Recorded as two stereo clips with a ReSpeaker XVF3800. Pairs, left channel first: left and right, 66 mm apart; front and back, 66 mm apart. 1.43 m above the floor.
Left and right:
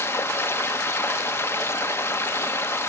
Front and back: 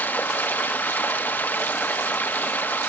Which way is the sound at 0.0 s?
50° left.